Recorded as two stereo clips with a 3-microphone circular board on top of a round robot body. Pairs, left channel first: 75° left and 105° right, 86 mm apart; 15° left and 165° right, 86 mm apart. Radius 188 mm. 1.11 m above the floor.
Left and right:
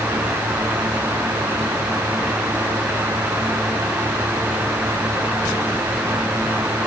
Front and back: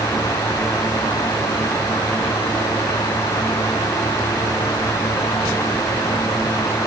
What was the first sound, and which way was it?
Only background noise.